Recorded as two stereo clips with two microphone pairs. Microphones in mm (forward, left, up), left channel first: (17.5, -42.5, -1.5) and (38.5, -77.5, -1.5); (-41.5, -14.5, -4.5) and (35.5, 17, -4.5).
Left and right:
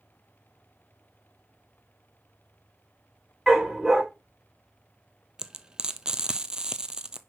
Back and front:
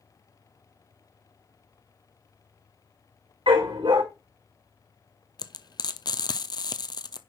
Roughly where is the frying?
Behind right.